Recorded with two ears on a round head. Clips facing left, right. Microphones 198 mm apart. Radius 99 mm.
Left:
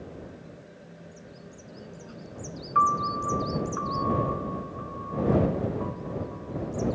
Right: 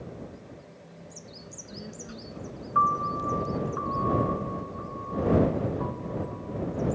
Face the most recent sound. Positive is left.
turn(degrees=25)  # may be behind; listen again after turning